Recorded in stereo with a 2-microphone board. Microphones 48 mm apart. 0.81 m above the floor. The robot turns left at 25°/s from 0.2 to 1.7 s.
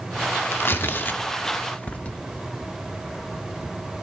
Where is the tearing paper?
55° left (ahead or behind), 0.5 m; by 2.2 s 30° left (ahead or behind), 0.5 m.